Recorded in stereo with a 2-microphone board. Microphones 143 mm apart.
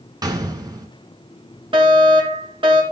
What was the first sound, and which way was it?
A gunshot, 25° right (ahead or behind).